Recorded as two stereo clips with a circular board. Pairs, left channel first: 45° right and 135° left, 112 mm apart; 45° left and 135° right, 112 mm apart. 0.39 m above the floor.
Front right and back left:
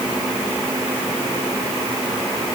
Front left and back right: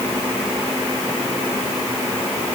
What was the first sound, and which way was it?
Only background noise.